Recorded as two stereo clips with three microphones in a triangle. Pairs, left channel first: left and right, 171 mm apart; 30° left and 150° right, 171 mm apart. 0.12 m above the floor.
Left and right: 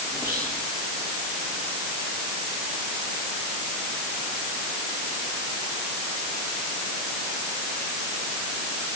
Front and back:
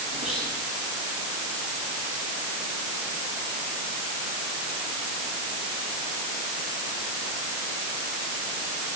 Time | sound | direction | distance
0.1 | whispering | 160° left | 7 m